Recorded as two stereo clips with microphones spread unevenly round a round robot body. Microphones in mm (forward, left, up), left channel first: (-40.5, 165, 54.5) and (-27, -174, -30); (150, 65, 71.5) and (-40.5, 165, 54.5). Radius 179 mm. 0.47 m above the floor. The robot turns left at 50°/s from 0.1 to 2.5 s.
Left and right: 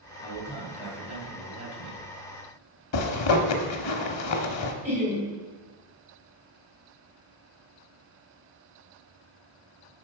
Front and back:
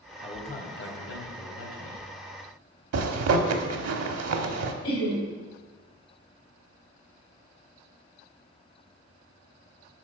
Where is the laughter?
10° right, 3 m.